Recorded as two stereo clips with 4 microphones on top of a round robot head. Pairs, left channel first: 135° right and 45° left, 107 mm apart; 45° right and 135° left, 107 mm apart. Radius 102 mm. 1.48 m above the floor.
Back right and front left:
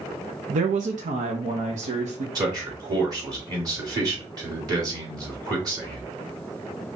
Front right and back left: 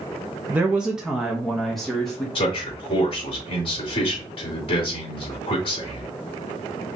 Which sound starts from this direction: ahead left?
A woman speaking, at 0.5 s.